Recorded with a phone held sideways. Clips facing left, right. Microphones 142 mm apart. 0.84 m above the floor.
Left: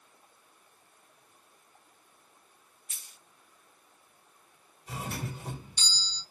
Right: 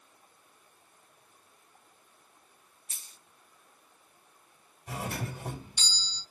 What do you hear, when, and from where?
2.9 s a dropped coin: 35° right (ahead or behind), 0.6 m
4.9 s a doorbell: 50° right (ahead or behind), 2.5 m